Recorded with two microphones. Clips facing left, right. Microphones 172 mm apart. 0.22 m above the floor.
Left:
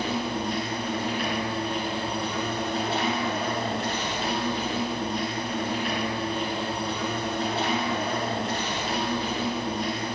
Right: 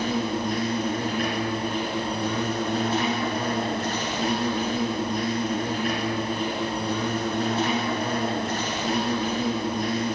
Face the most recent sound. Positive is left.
turn(degrees=-45)  # may be behind; listen again after turning